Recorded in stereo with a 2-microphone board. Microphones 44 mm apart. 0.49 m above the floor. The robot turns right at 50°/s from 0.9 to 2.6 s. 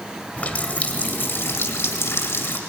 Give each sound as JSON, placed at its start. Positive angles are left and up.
{"t": 0.4, "sound": "a running tap", "azimuth_deg": 35, "distance_m": 1.7}